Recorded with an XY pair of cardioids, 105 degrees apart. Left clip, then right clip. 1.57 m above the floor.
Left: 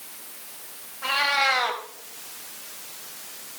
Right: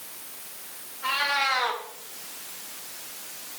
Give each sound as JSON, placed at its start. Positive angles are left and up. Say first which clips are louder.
{"t": 1.0, "sound": "a cat meowing", "louder": "left 3 dB", "azimuth_deg": 45, "distance_m": 3.5}